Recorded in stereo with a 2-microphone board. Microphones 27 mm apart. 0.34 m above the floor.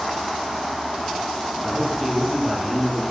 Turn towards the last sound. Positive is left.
turn(degrees=5)  # may be behind; listen again after turning